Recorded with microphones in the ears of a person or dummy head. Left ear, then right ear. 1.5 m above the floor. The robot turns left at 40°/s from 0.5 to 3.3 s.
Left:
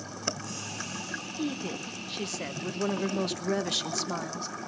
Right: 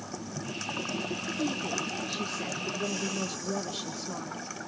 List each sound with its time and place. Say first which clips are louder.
1.4 s a woman speaking: right 4 dB; 175° left, 1.0 m; by 4.5 s 100° left, 1.0 m